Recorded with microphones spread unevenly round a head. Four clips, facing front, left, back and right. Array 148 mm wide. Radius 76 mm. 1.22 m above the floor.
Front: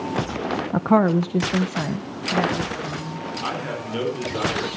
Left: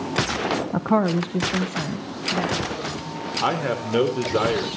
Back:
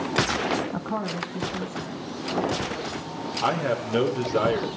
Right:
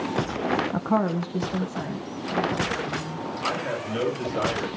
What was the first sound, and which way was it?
A woman speaking, 30° left.